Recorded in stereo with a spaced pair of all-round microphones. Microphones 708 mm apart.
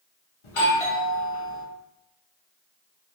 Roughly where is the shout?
I don't hear a shout.